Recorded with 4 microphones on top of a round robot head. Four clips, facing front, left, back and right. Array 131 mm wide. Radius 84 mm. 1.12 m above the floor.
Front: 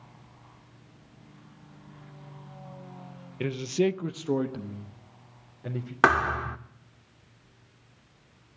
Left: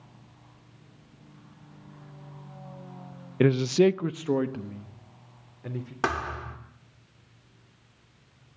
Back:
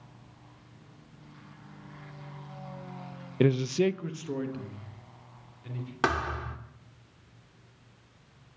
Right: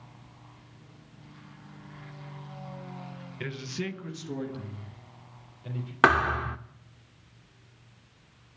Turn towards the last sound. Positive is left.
turn(degrees=-45)